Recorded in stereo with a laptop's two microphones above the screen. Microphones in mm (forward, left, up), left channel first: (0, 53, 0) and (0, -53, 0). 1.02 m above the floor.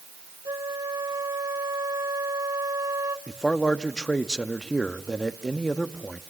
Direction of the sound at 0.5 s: 35° right (ahead or behind).